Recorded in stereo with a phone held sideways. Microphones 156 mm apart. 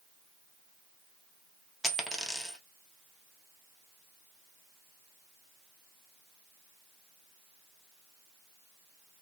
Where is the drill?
No drill in this recording.